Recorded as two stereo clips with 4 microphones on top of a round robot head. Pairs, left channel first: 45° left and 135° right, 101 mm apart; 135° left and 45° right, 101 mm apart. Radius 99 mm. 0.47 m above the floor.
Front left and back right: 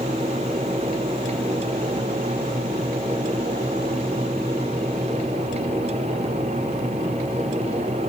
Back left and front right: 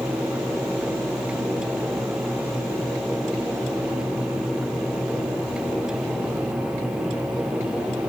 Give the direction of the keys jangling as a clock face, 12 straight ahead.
I don't hear keys jangling.